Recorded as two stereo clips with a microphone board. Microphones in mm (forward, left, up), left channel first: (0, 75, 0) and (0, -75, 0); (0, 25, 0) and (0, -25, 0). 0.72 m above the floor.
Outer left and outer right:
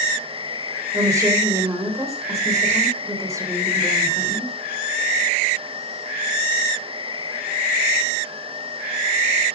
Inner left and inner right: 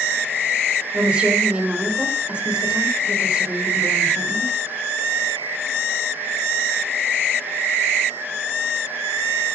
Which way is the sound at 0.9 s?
20° right (ahead or behind).